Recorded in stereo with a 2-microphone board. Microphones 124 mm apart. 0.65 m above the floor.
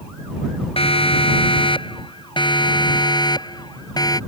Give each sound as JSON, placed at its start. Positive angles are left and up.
{"t": 0.8, "sound": "a siren", "side_deg": 50}